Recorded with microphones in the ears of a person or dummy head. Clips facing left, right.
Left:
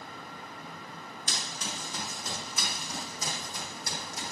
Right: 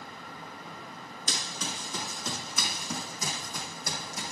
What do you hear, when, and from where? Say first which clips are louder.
1.3 s running footsteps: right 2 dB; 75° right (ahead or behind), 6 m; by 4.3 s 70° right (ahead or behind), 4 m